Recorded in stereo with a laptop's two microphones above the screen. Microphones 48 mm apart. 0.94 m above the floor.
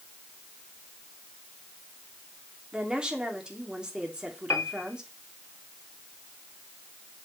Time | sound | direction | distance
2.7 | a woman speaking | 20° right (ahead or behind) | 2.5 m
4.5 | a piano | 85° left | 1.3 m